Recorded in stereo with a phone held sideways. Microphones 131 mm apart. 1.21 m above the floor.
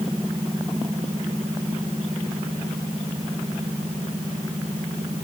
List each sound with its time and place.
Only background noise.